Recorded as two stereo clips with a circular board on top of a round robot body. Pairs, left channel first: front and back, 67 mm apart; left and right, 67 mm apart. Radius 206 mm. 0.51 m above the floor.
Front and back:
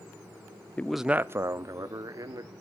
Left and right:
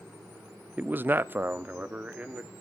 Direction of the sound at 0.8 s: 45° right.